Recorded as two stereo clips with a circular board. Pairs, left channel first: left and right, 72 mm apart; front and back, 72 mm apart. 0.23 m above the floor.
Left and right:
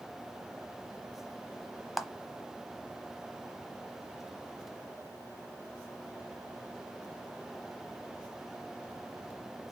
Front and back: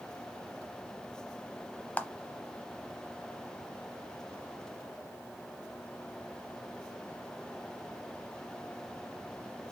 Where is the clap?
5° right, 0.8 m.